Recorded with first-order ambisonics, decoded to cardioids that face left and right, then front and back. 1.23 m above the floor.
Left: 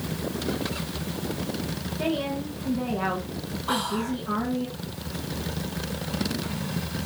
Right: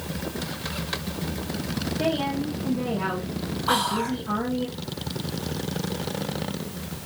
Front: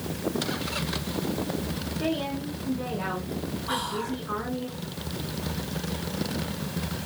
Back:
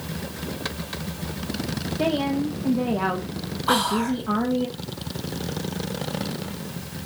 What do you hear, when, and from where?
2.0 s a woman speaking: 175° right, 1.3 m
3.7 s whispering: 155° right, 0.8 m